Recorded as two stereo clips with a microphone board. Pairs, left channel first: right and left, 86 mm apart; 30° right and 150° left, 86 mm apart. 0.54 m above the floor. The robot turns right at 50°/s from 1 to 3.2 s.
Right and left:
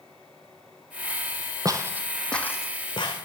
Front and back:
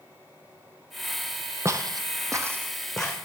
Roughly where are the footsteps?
Left.